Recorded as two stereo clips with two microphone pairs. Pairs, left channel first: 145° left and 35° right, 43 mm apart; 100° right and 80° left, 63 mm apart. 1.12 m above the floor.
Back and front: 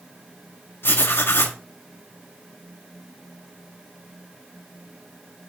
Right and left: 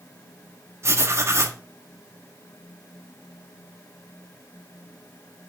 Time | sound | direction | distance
0.8 | writing | 120° left | 2 m